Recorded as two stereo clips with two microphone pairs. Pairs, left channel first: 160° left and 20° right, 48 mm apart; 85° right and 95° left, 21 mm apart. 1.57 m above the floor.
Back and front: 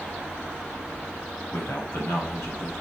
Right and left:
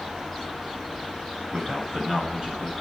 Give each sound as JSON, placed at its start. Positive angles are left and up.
{"t": 1.5, "sound": "a man speaking", "azimuth_deg": 145, "distance_m": 8.5}